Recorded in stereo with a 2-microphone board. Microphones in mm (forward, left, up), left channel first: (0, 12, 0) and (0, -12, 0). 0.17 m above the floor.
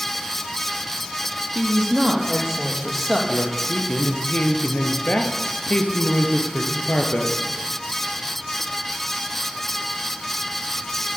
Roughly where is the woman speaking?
Centre.